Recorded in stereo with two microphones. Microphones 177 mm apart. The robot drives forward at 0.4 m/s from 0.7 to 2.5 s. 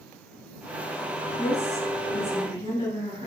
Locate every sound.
1.4 s a woman speaking: 35° left (ahead or behind), 2.0 m; by 3.3 s 40° left (ahead or behind), 1.8 m